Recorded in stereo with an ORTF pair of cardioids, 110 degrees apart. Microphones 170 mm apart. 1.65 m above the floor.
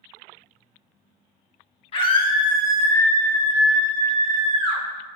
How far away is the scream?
About 1.4 m.